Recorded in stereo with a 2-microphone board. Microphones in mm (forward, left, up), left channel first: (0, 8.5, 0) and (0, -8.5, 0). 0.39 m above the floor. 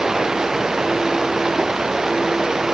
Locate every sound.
0.0 s running water: 30° right (ahead or behind)